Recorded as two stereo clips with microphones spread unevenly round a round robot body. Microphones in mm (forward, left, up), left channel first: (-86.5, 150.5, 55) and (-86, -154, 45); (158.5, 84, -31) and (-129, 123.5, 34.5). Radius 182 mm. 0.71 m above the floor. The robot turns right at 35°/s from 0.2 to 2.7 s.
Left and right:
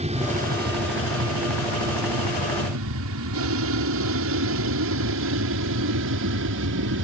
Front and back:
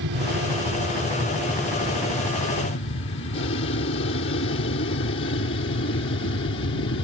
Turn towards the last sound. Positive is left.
turn(degrees=-65)